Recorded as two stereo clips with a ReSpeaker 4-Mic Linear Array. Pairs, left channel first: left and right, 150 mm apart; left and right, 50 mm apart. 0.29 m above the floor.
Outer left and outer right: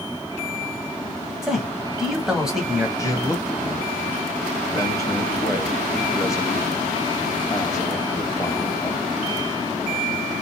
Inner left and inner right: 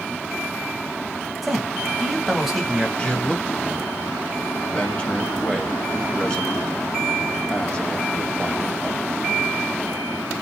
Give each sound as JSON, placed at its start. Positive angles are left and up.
{"t": 1.4, "sound": "a man speaking", "side_deg": -5, "distance_m": 1.3}
{"t": 3.0, "sound": "a man speaking", "side_deg": 25, "distance_m": 1.0}